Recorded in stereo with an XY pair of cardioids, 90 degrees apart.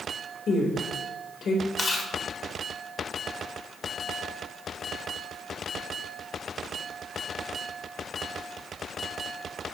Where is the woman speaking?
60° left, 4 m.